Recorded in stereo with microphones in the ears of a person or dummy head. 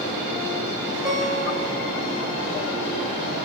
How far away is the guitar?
About 4.5 m.